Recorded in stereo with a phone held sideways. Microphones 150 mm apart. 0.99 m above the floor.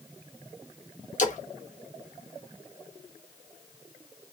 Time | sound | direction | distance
1.2 | a splash | 55° left (ahead or behind) | 0.6 m